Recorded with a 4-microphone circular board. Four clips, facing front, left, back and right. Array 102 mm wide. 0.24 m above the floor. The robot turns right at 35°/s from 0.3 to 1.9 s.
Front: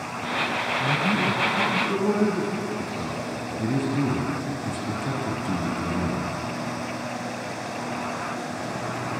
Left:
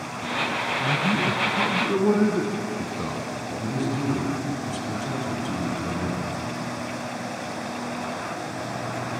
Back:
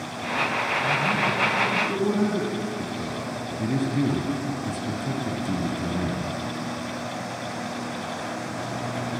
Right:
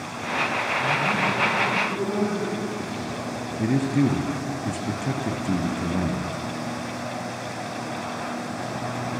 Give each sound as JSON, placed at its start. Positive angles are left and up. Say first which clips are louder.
{"t": 0.8, "sound": "a man speaking", "louder": "even, front 1 dB", "azimuth_deg": 40, "distance_m": 2.5}
{"t": 3.6, "sound": "a man speaking", "louder": "right 6 dB, even", "azimuth_deg": -90, "distance_m": 2.5}